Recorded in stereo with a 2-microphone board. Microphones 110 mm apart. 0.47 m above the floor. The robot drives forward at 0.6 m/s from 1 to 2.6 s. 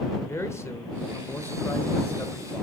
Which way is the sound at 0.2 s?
25° left (ahead or behind).